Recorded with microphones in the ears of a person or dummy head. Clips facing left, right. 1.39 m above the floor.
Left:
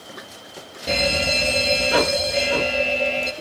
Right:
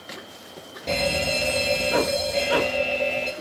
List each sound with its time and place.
0.9 s a fire alarm: 5° left (ahead or behind), 3.5 m